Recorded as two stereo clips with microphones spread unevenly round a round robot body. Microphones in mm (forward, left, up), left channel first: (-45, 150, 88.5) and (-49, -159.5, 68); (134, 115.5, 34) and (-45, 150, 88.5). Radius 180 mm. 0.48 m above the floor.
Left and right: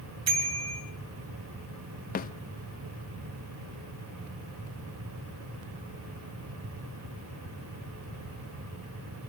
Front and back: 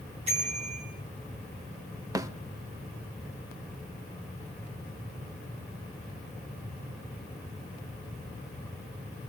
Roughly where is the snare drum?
Left.